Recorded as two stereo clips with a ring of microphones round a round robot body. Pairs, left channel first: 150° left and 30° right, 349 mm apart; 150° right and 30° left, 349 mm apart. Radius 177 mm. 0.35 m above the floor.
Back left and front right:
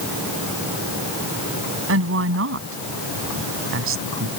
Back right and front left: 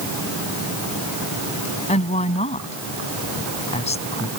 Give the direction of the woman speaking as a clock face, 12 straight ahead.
3 o'clock.